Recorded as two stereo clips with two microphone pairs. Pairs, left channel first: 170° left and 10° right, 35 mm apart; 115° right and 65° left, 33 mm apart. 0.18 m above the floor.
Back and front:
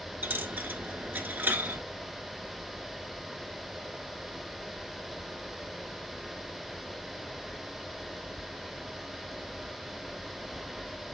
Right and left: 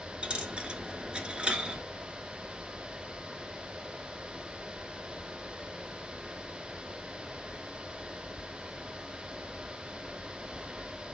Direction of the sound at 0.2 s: 10° left.